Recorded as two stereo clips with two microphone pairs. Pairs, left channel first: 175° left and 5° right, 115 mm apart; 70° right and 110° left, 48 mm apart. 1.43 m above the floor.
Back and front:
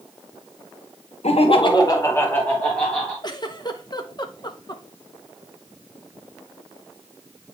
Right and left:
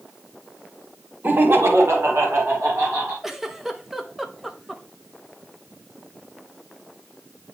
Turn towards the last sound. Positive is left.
turn(degrees=-170)